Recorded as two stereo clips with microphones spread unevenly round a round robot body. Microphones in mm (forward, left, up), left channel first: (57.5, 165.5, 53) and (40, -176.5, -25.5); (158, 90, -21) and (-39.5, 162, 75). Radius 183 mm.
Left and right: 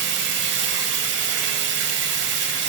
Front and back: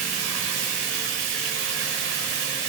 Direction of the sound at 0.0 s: 145° right.